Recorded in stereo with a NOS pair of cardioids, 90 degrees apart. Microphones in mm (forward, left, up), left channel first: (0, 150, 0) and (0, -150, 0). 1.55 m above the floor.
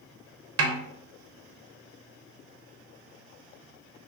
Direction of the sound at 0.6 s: 50° right.